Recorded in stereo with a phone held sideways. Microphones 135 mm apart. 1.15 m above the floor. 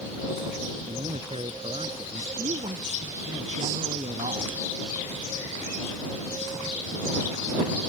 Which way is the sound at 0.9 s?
45° right (ahead or behind).